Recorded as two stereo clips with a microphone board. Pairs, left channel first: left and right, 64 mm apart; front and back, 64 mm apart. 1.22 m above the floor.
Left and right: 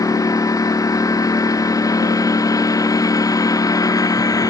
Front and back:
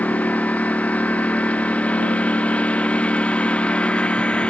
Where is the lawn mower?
70° left; by 4.5 s 75° left.